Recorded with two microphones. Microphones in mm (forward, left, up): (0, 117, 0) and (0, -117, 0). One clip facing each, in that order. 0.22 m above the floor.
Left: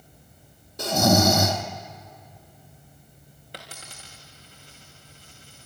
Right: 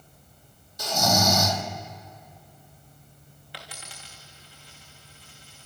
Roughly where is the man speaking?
No man speaking in this recording.